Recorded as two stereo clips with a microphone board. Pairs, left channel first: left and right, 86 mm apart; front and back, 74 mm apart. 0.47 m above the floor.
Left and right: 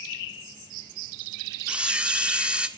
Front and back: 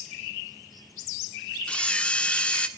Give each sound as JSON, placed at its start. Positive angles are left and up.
{"t": 1.7, "sound": "a camera shutter", "azimuth_deg": -45, "distance_m": 1.3}